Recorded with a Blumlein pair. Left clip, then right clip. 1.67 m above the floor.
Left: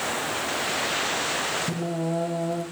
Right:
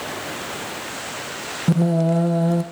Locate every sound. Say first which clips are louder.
1.7 s singing: right 7 dB; 60° right, 1.8 m